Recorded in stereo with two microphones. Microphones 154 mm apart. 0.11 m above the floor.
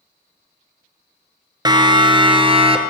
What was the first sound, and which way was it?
A siren, 30° right (ahead or behind).